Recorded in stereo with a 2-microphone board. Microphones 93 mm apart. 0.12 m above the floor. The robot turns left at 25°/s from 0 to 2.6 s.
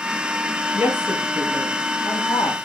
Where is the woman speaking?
155° right, 3 m; by 2.5 s 160° left, 3 m.